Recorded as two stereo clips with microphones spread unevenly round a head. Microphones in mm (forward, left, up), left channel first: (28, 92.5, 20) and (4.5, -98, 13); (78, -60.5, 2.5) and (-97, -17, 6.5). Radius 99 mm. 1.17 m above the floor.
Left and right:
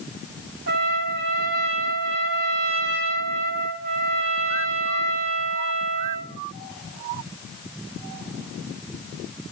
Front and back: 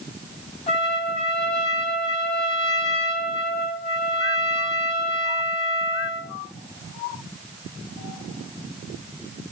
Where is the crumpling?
I don't hear crumpling.